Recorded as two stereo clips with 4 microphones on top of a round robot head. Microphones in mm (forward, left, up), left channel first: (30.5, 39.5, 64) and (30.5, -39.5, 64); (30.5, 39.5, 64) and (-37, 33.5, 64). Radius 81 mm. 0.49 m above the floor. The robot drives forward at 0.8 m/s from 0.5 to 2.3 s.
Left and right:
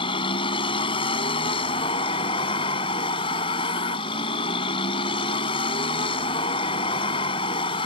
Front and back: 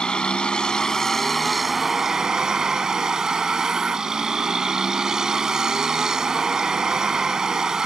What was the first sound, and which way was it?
A vehicle, 85° left.